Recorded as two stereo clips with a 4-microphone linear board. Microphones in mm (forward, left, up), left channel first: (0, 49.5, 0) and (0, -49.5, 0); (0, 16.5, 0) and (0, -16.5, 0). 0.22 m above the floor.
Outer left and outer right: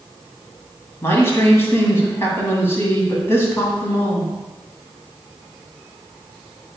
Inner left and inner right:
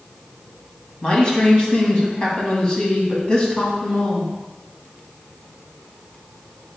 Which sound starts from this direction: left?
A man speaking, at 1.0 s.